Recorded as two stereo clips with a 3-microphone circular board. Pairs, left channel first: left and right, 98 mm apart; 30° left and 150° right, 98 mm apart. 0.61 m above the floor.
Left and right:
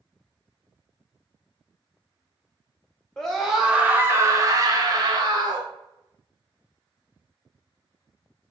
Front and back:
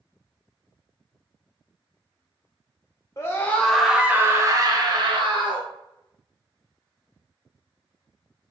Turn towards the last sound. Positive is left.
turn(degrees=-130)